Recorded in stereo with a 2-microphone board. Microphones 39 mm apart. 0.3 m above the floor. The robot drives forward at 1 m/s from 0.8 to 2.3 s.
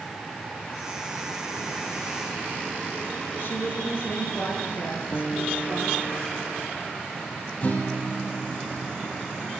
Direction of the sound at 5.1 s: 45° left (ahead or behind).